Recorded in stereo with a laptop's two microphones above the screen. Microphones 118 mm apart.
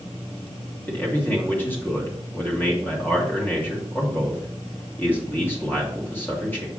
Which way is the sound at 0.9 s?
20° left (ahead or behind).